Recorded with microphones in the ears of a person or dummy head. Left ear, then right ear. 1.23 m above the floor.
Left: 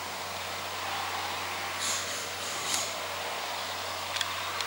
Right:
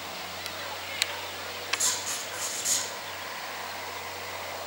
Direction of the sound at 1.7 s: 40° right (ahead or behind).